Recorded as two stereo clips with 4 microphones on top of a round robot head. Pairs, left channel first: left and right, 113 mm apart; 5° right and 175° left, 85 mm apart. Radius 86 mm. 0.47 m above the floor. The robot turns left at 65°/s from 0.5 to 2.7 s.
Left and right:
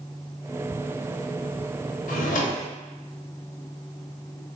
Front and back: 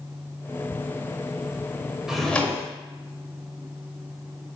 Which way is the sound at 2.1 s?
90° left.